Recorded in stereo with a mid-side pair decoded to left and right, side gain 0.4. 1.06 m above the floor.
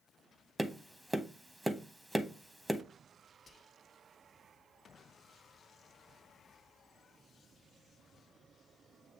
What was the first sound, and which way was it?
Tapping, 10° right.